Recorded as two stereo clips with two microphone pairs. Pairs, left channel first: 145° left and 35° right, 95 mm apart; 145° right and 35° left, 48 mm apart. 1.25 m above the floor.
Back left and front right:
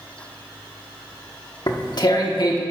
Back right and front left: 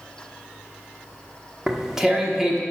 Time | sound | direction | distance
1.7 | tearing paper | 115° left | 1.2 m